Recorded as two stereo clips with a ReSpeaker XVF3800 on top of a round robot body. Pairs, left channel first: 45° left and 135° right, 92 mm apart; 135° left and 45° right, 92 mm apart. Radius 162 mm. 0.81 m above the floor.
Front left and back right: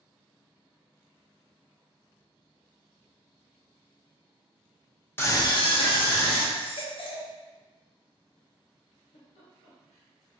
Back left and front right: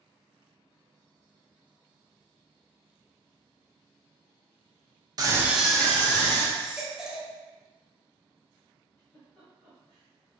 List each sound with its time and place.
5.2 s a scream: 15° right, 0.7 m; by 6.5 s 75° left, 1.6 m
6.5 s a baby crying: 40° left, 0.7 m
9.0 s a giggle: 65° left, 1.2 m